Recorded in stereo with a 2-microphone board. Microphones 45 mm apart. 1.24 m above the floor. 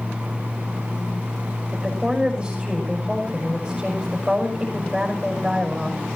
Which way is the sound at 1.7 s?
20° right (ahead or behind).